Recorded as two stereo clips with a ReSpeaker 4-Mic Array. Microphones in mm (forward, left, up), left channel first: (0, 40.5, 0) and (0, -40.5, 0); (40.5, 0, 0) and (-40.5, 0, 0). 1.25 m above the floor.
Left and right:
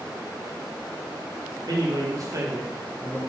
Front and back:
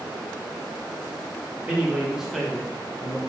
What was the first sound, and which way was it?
A man speaking, 105° right.